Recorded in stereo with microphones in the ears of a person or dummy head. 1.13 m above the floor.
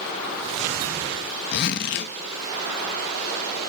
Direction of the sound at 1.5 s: 55° left (ahead or behind).